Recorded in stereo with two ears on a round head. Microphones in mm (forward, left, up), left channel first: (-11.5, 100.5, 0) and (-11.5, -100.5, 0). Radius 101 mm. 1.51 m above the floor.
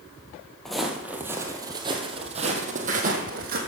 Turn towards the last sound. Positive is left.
turn(degrees=-40)  # may be behind; listen again after turning